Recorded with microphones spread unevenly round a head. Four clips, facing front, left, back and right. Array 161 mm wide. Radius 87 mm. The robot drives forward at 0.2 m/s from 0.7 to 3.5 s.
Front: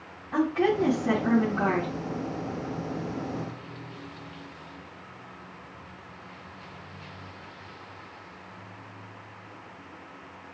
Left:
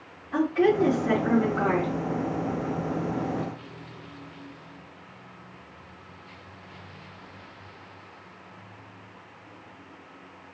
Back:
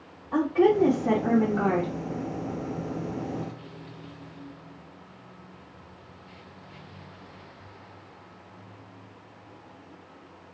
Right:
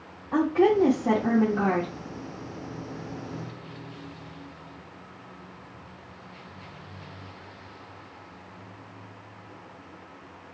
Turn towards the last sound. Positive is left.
turn(degrees=-125)